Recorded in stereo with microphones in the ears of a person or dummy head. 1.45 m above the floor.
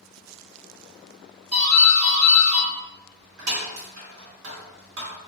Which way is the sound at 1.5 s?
75° right (ahead or behind).